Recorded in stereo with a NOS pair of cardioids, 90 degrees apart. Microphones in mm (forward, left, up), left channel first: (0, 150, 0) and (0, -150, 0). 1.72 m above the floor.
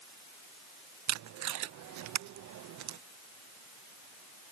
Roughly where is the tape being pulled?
Right.